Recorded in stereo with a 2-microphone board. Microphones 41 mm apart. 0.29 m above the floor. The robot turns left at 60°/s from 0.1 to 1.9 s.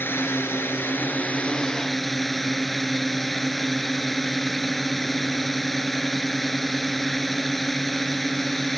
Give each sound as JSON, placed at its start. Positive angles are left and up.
{"t": 0.0, "sound": "a drone", "azimuth_deg": 110}